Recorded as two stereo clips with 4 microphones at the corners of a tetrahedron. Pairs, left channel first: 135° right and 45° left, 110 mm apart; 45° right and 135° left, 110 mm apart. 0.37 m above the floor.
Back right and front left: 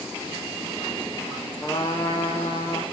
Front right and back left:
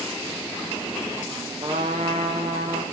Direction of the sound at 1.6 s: 160° left.